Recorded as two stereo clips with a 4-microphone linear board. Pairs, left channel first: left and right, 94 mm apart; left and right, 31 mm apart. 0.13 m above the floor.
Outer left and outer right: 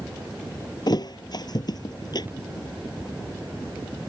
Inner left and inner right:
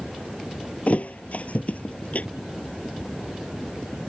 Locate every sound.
0.9 s a thud: 55° left (ahead or behind)